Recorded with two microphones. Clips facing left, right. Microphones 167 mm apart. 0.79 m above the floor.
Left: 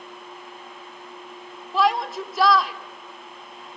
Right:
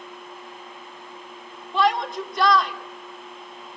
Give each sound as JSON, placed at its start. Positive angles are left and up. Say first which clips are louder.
{"t": 1.7, "sound": "a shout", "louder": "even", "side_deg": 0, "distance_m": 2.5}